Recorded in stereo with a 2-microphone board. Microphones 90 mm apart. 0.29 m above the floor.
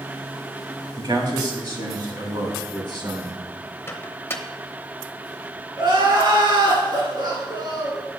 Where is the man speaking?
50° right (ahead or behind), 2 m; by 3.4 s 55° right (ahead or behind), 3 m.